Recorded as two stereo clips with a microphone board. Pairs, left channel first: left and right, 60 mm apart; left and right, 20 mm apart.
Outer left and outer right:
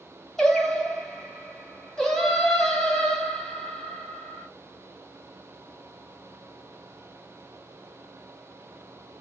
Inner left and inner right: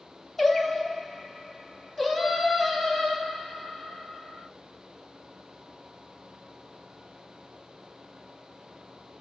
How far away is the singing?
About 1.2 m.